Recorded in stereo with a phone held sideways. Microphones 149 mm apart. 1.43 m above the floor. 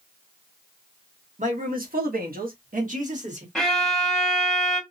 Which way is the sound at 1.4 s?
60° right (ahead or behind).